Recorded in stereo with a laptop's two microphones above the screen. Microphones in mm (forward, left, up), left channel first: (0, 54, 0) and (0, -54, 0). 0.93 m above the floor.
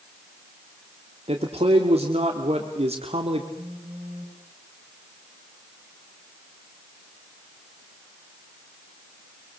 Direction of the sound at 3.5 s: 85° right.